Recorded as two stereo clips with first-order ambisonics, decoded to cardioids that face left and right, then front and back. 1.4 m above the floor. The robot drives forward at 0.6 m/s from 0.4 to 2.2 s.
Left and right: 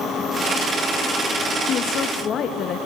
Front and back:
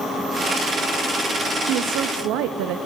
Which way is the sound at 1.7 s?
140° left.